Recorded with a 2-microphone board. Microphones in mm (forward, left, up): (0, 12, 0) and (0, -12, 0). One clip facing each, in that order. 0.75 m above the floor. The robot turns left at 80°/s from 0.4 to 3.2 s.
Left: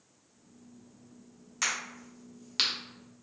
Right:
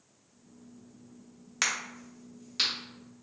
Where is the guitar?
No guitar in this recording.